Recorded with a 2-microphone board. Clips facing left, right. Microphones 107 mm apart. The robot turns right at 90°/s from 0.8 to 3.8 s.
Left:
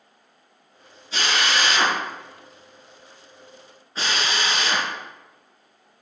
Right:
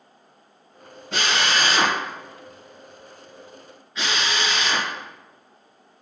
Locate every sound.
1.1 s a drill: 65° right (ahead or behind), 4 m; by 6.0 s 40° left (ahead or behind), 4 m